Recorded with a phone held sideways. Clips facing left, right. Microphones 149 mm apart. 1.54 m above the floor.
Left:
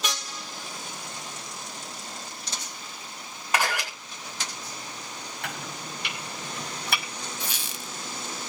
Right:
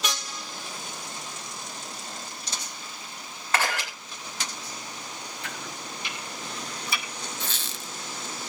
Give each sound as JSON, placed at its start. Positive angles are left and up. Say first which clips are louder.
{"t": 3.5, "sound": "a camera shutter", "louder": "left 1 dB", "side_deg": 15, "distance_m": 8.0}
{"t": 5.4, "sound": "chopping", "louder": "left 3 dB", "side_deg": 65, "distance_m": 6.0}
{"t": 7.4, "sound": "a squeak", "louder": "even", "side_deg": 15, "distance_m": 1.8}